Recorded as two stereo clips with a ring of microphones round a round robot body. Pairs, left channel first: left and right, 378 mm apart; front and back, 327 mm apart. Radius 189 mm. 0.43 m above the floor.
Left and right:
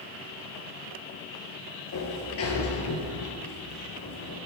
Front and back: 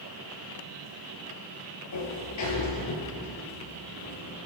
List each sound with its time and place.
1.9 s a sliding door: 35° left, 4 m